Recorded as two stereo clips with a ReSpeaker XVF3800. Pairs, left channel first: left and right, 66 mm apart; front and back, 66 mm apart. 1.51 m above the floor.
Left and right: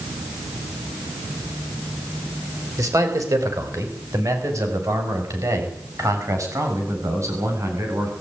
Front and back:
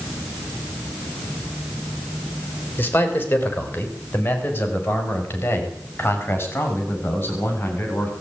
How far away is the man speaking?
About 5 m.